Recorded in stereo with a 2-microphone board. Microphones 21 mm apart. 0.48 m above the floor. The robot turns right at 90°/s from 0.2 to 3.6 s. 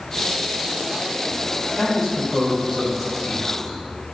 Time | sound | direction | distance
1.8 | a man speaking | 140° right | 1.9 m